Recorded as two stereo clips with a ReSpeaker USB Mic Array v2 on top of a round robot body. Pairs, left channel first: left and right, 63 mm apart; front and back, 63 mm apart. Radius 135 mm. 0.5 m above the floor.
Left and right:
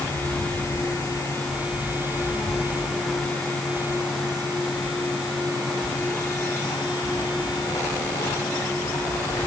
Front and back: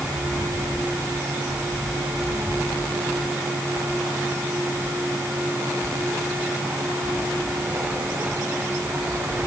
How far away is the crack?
No crack in this recording.